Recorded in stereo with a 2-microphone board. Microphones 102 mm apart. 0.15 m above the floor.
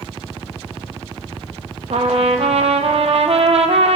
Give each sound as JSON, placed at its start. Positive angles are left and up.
{"t": 1.9, "sound": "a trumpet", "side_deg": -75, "distance_m": 0.7}